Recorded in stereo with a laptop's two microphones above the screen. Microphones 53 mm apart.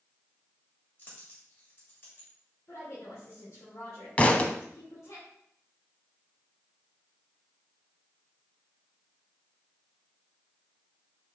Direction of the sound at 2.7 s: 75° left (ahead or behind).